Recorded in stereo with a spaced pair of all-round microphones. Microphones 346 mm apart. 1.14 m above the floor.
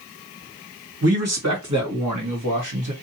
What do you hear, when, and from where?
1.0 s a man speaking: 45° right (ahead or behind), 1.5 m; by 2.9 s 60° right (ahead or behind), 1.2 m